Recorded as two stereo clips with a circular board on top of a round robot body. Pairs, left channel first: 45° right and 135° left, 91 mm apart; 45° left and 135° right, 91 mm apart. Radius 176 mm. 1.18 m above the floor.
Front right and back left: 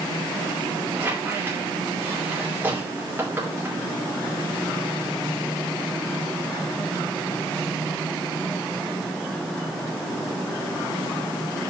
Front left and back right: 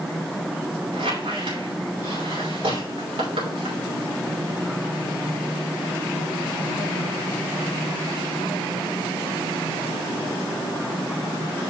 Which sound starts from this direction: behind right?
A squeak, at 0.9 s.